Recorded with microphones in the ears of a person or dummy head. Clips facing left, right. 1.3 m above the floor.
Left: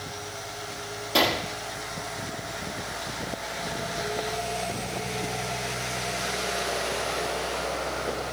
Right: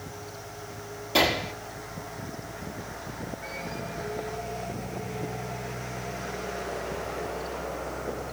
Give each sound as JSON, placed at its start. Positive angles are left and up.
{"t": 1.1, "sound": "a gunshot", "side_deg": 5, "distance_m": 1.6}